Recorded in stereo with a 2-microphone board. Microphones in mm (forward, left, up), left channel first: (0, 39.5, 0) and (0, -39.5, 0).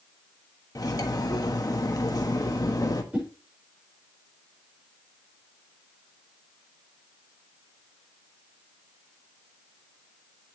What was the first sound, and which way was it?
Cutlery clinking, 50° left (ahead or behind).